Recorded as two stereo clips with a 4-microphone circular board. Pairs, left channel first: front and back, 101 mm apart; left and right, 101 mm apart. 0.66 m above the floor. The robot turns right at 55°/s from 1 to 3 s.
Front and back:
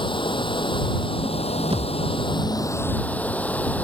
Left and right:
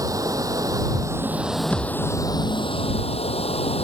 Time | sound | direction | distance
0.0 | running water | 35° right | ?
1.7 | a thud | 165° left | ?